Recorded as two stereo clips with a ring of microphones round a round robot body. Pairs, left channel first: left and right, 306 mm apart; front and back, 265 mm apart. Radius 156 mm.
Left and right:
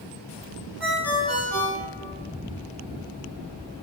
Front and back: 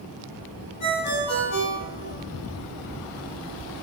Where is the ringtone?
5° right, 4 m.